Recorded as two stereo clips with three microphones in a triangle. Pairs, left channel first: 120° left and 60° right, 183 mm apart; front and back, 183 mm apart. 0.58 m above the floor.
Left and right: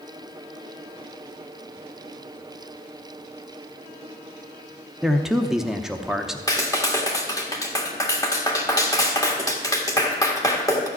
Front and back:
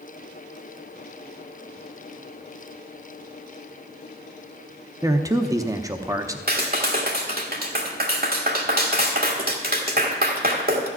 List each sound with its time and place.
5.0 s a man speaking: 145° right, 0.8 m
6.5 s a clap: 175° right, 1.6 m